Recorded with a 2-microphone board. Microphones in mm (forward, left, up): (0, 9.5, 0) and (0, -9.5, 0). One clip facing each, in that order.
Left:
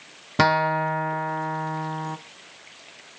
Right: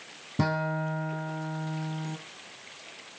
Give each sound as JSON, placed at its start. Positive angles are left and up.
{"t": 0.4, "sound": "a guitar", "side_deg": 70, "distance_m": 1.0}